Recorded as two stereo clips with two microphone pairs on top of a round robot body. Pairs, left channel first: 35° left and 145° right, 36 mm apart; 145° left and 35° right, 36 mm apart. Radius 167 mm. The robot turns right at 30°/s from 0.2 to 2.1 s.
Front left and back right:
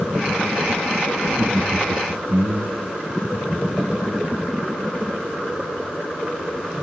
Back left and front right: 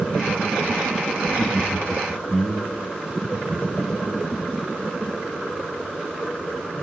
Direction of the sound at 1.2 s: 165° right.